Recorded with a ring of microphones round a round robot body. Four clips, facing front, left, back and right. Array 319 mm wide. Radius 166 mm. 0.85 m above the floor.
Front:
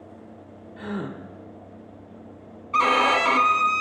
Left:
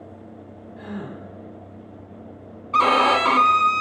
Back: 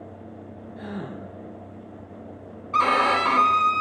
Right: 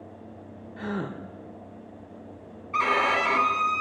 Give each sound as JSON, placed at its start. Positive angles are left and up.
{"t": 0.8, "sound": "a gasp", "azimuth_deg": -70, "distance_m": 1.0}
{"t": 2.7, "sound": "a violin", "azimuth_deg": 95, "distance_m": 0.7}